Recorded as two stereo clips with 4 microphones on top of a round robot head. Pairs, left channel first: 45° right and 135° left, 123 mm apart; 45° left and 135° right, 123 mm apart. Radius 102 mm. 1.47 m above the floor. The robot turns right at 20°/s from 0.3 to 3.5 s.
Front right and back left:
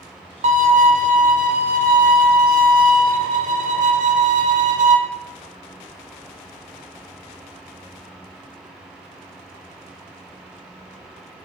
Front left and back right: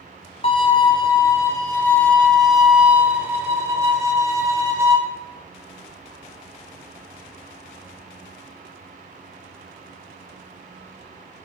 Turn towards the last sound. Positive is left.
turn(degrees=155)